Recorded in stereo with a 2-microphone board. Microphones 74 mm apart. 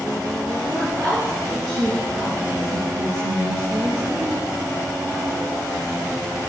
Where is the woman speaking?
60° right (ahead or behind), 4 m.